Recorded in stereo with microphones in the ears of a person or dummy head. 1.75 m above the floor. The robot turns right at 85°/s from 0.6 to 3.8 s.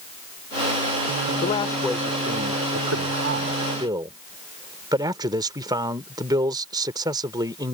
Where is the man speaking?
135° left; by 7.7 s 20° right.